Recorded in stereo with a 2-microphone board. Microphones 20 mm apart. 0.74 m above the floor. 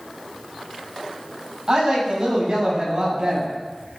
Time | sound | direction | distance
1.7 | a woman speaking | 45° right (ahead or behind) | 5 m